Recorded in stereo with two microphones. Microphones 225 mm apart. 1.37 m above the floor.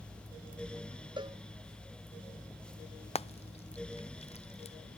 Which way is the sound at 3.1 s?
25° left (ahead or behind).